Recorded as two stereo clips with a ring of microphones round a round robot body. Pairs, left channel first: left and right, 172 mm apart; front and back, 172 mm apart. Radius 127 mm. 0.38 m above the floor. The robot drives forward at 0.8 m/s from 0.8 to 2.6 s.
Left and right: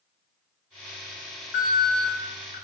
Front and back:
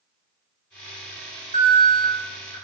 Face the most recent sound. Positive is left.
turn(degrees=125)